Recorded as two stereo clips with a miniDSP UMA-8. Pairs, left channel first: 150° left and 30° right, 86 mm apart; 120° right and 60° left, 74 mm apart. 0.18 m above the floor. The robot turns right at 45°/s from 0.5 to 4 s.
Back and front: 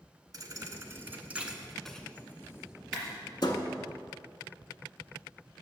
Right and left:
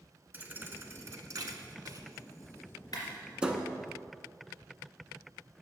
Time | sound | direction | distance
0.3 | a thud | 5° left | 0.7 m
2.9 | a clap | 120° right | 2.5 m